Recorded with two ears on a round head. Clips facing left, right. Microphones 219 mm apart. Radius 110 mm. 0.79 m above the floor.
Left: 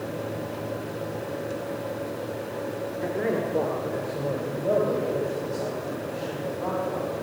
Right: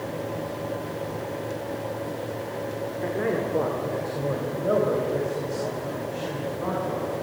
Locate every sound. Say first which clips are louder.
3.0 s a man speaking: even; centre (ahead or behind), 1.9 m; by 7.1 s 20° right (ahead or behind), 6 m